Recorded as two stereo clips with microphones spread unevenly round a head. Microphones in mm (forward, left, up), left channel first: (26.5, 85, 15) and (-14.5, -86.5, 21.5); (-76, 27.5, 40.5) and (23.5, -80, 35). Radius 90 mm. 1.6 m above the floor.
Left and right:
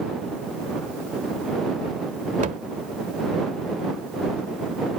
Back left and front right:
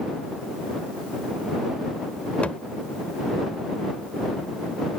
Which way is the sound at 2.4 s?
150° right.